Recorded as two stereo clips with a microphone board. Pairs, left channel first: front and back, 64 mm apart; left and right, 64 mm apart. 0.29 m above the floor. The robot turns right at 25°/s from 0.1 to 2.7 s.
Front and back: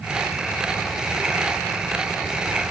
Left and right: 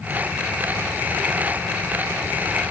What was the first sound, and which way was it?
Only background noise.